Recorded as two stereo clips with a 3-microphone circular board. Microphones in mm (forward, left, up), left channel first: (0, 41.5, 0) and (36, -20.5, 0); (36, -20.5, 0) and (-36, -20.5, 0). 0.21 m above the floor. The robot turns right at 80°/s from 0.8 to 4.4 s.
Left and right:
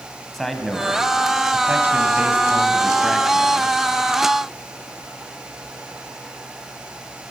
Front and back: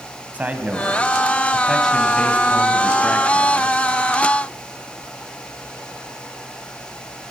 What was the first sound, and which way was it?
A man speaking, 160° right.